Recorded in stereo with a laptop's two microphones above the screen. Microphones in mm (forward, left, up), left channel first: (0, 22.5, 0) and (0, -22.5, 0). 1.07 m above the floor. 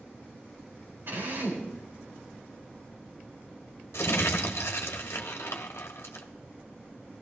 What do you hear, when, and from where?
1.1 s a drill: 55° right (ahead or behind), 4 m
3.9 s crumpling: 75° left (ahead or behind), 1.4 m